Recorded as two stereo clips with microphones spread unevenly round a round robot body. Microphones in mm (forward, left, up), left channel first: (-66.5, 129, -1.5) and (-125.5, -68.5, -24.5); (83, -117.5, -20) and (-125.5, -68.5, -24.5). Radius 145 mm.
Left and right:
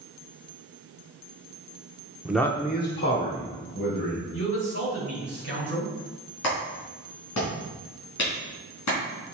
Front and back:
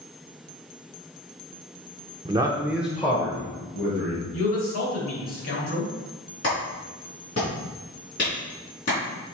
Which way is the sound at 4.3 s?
25° left.